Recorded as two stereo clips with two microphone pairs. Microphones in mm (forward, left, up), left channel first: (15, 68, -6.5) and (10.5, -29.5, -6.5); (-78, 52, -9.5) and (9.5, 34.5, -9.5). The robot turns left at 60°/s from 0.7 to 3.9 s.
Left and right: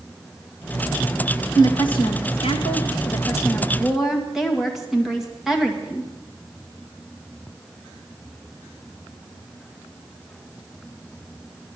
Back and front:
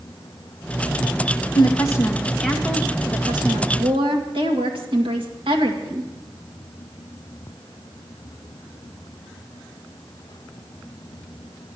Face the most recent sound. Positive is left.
turn(degrees=-5)